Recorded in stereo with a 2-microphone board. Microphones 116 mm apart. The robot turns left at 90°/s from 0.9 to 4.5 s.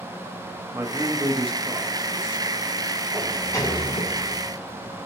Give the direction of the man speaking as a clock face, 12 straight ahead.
1 o'clock.